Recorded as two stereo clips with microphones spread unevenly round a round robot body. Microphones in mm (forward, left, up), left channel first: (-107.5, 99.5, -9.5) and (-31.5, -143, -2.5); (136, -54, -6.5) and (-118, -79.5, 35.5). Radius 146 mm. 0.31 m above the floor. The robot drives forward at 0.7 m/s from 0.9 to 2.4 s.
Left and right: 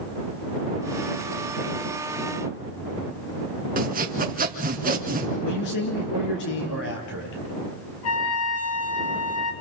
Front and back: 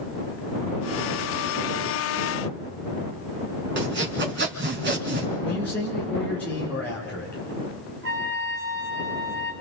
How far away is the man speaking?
About 7 m.